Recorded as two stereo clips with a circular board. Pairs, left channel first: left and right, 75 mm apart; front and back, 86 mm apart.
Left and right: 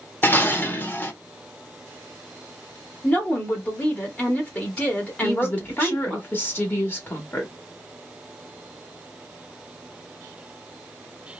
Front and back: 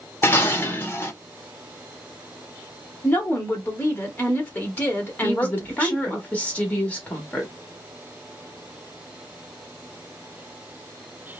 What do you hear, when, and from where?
0.2 s dishes clattering: 45° left, 0.5 m
3.0 s a woman speaking: 45° left, 1.0 m
5.2 s a woman speaking: 60° left, 1.2 m